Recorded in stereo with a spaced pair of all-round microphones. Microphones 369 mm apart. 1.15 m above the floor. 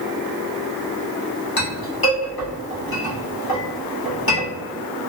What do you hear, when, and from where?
1.6 s a clink: 70° left (ahead or behind), 1.1 m